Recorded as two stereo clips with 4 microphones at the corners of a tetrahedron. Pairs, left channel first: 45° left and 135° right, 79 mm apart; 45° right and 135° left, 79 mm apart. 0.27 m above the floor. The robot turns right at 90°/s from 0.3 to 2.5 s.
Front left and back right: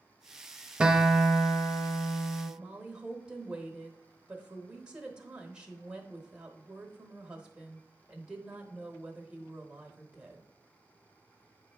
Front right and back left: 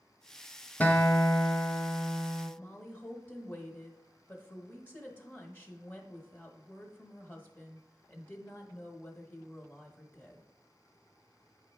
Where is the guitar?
75° right, 0.7 m; by 2.5 s 80° left, 0.7 m.